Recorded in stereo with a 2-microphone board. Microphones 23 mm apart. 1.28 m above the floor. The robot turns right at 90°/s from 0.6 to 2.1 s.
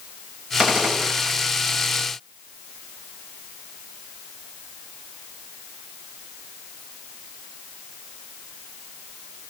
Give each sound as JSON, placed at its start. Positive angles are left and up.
{"t": 0.6, "sound": "a gunshot", "azimuth_deg": -150, "distance_m": 6.5}